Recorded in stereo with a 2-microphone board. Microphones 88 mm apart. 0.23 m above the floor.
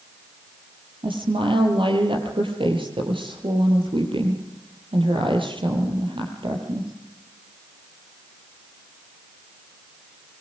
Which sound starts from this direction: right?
A woman speaking, at 1.0 s.